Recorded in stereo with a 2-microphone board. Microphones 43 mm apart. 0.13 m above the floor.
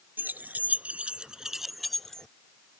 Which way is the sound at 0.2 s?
50° right (ahead or behind).